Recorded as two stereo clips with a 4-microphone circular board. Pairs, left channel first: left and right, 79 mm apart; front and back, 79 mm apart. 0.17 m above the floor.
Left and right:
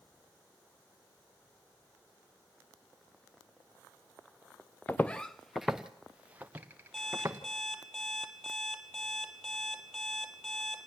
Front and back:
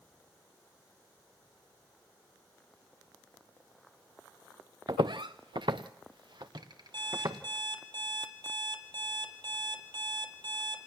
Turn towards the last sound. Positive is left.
turn(degrees=175)